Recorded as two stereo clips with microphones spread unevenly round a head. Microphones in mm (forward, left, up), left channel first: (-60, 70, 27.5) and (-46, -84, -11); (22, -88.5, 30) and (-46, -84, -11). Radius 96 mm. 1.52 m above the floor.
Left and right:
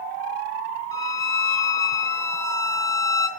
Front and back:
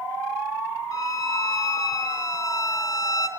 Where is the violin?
25° left, 0.8 m.